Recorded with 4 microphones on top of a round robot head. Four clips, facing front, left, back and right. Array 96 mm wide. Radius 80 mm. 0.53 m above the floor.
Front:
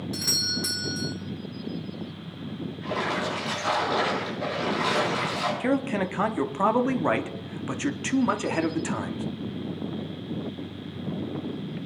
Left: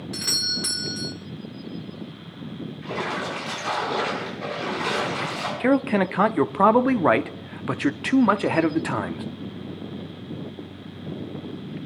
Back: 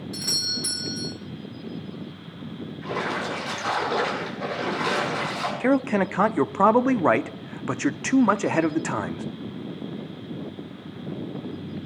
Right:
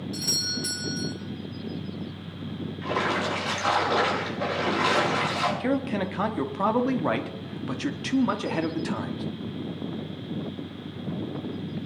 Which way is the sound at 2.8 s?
100° right.